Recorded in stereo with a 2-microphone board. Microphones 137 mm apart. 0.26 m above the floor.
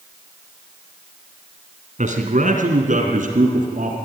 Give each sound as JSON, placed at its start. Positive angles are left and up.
{"t": 2.0, "sound": "a man speaking", "side_deg": -60, "distance_m": 2.5}